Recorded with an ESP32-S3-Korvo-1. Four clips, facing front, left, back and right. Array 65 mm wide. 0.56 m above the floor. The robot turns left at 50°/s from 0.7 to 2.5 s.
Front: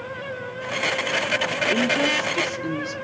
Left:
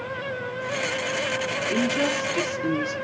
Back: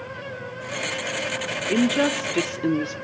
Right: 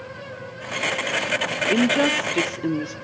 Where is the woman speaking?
110° right, 1.2 m; by 2.9 s 150° right, 1.2 m.